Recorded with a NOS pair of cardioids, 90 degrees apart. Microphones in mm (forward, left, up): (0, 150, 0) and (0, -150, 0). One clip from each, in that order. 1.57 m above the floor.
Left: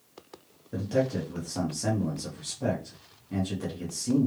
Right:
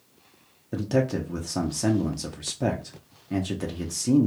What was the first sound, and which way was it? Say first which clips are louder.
A man speaking: right 2 dB; 35° right.